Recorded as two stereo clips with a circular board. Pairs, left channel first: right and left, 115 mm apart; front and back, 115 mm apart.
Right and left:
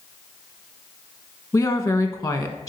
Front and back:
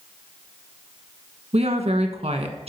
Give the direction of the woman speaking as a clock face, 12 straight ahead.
5 o'clock.